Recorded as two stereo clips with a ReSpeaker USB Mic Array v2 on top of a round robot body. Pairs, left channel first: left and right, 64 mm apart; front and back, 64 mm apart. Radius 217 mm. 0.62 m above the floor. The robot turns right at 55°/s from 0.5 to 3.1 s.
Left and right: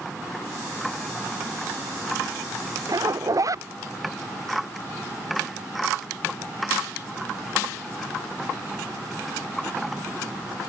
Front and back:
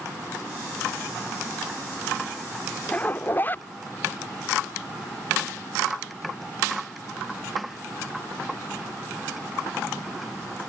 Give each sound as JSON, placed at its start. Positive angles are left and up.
{"t": 2.9, "sound": "a zipper", "azimuth_deg": -70}